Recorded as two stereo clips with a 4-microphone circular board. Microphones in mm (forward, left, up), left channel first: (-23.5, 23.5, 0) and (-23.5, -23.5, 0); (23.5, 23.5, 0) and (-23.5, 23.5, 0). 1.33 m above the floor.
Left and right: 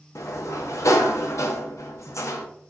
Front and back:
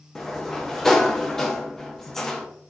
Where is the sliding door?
80° left, 0.5 m.